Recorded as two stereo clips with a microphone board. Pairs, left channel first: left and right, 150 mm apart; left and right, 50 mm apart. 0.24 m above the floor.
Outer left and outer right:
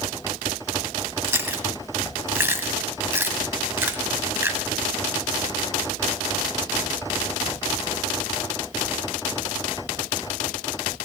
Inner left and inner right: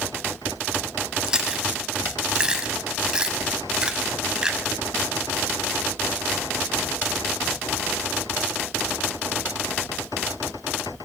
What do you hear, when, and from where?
1.2 s chewing: 15° right (ahead or behind), 1.2 m